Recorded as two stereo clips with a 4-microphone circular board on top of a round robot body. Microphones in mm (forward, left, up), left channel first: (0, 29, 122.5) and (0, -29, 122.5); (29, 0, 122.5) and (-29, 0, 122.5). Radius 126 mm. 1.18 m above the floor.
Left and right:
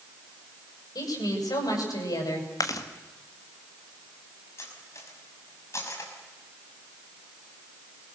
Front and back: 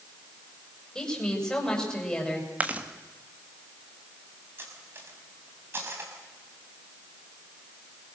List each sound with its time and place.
0.9 s a woman speaking: 80° left, 8.5 m
2.6 s chewing: 115° left, 1.9 m
4.6 s cutlery clinking: 130° left, 5.5 m